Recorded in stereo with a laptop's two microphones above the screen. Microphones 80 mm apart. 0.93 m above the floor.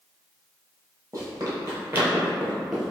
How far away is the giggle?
No giggle in this recording.